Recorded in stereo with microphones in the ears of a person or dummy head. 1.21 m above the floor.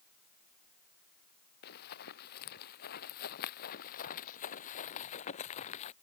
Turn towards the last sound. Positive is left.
turn(degrees=40)  # may be behind; listen again after turning